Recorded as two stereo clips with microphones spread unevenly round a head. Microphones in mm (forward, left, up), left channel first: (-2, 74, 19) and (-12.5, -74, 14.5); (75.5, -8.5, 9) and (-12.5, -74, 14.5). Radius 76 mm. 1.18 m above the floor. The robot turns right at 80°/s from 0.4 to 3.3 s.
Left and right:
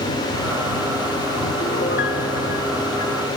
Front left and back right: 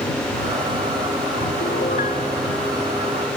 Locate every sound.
1.6 s a piano: 35° left; by 3.2 s 170° left